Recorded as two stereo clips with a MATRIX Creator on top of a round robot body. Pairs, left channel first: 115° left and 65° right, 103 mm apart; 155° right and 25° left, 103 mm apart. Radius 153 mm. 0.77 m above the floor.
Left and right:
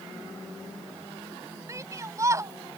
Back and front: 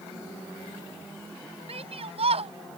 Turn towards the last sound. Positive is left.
turn(degrees=-5)